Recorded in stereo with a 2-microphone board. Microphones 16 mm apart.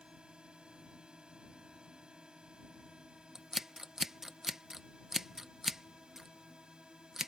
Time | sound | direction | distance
0.0 | a drone | 50° right (ahead or behind) | ?
3.4 | scissors | 25° right (ahead or behind) | ?